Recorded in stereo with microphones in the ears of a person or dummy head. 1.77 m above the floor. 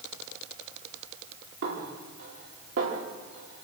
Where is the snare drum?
70° right (ahead or behind), 4.5 m.